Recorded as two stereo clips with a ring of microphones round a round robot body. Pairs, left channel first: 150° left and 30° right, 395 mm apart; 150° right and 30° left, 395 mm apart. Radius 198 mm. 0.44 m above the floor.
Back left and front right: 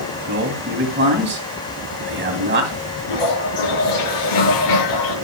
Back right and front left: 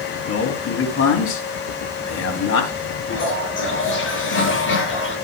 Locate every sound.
0.3 s a man speaking: 95° right, 3 m
3.1 s a toilet flushing: 150° left, 7 m